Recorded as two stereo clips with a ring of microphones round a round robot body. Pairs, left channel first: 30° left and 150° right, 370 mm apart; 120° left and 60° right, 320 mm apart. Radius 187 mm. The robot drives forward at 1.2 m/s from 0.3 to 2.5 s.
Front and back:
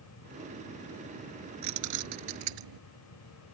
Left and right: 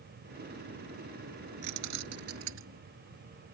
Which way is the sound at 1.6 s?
105° right.